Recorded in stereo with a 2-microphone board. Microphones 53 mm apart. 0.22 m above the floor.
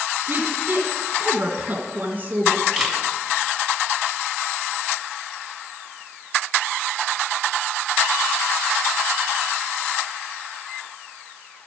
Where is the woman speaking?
35° right (ahead or behind), 2 m.